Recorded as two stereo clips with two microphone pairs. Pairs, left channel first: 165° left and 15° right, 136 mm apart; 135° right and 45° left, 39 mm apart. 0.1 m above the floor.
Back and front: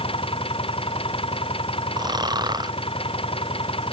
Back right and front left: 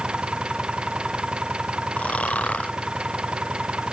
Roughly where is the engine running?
Behind left.